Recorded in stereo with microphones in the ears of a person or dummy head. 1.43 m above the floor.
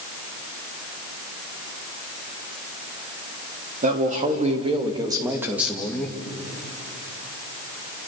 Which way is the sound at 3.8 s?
45° right (ahead or behind).